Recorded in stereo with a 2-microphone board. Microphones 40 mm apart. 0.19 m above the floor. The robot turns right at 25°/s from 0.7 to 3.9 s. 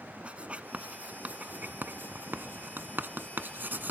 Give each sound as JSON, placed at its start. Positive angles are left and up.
{"t": 0.2, "sound": "writing", "side_deg": -30, "distance_m": 0.8}